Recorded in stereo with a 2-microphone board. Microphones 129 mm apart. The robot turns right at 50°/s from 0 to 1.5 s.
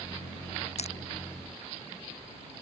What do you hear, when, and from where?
0.8 s crushing: 60° left (ahead or behind); by 1.0 s 50° left (ahead or behind)